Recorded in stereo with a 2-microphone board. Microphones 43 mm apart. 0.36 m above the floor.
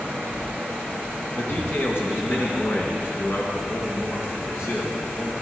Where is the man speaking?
60° left (ahead or behind), 3 m; by 5.3 s 65° left (ahead or behind), 6 m.